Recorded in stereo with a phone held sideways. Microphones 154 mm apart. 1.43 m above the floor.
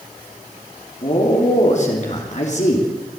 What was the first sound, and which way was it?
A man speaking, 50° left (ahead or behind).